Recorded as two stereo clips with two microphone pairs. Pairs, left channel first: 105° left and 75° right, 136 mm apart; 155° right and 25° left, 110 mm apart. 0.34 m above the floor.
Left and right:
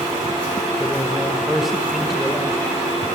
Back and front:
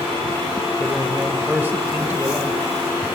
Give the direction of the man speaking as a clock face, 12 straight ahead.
12 o'clock.